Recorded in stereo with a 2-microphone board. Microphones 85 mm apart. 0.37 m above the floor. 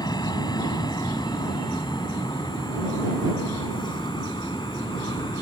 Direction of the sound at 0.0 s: 55° left (ahead or behind).